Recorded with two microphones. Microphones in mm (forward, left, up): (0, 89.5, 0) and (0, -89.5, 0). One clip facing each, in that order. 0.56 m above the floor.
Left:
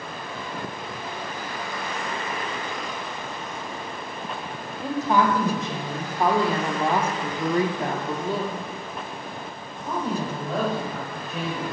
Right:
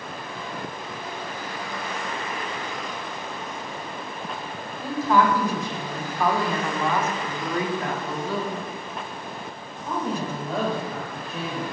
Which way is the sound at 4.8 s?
20° left (ahead or behind).